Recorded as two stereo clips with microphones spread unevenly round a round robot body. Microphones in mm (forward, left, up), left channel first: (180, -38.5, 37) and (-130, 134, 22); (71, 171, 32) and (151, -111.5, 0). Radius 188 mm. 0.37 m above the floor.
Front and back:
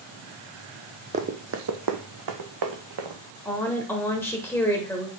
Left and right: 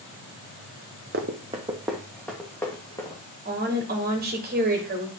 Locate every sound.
1.1 s running footsteps: 135° right, 0.6 m; by 3.2 s 175° right, 1.7 m
3.5 s a woman speaking: 110° right, 1.4 m